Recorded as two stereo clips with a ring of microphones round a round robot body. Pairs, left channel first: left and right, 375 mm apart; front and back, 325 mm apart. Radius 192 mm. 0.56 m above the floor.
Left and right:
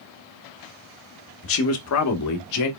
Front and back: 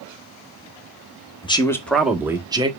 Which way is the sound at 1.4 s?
65° left.